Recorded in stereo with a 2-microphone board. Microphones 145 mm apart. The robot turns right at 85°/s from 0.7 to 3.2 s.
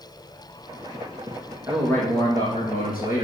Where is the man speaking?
10° right, 6.5 m; by 3.2 s 120° left, 6.5 m.